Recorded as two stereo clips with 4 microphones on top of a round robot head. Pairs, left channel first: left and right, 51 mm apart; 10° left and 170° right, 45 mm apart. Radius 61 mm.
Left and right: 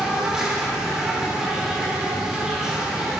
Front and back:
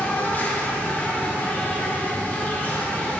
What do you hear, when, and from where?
0.0 s an insect: 20° right, 1.4 m